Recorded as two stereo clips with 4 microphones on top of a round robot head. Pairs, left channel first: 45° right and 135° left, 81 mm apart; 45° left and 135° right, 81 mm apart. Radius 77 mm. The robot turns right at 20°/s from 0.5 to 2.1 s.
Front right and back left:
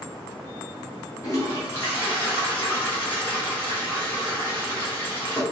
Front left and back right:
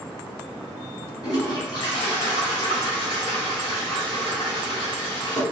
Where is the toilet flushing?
5° left, 2 m; by 5.4 s 20° left, 2 m.